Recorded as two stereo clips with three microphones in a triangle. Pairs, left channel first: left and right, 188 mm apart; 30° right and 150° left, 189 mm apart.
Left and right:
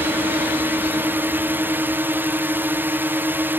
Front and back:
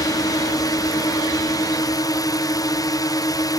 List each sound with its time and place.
0.0 s a drone: 35° right